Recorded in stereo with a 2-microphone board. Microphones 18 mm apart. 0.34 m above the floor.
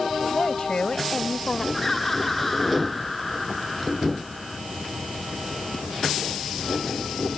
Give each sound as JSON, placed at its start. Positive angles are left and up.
{"t": 0.3, "sound": "a woman speaking", "side_deg": 55}
{"t": 1.7, "sound": "laughter", "side_deg": 10}